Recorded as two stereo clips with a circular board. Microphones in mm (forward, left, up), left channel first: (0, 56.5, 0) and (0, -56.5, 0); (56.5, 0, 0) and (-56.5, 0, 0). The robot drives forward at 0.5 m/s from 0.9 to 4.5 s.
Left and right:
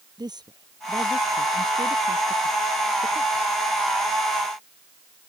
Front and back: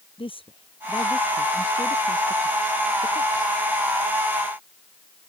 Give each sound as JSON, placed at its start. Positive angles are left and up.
{"t": 0.2, "sound": "a woman speaking", "azimuth_deg": -40}